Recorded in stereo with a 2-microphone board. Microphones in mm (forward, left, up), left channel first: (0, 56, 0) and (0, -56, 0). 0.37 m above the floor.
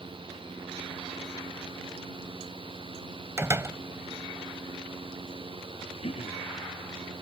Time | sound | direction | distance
3.4 | a door slam | 25° right (ahead or behind) | ?
6.0 | throat clearing | 60° left (ahead or behind) | ?